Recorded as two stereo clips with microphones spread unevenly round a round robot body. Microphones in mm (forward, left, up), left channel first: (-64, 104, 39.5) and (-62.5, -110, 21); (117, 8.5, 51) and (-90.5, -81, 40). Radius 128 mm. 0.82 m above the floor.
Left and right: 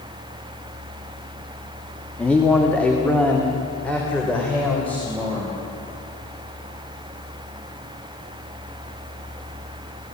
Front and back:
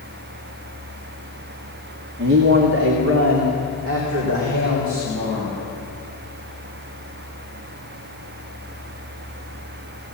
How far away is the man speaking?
About 2.0 m.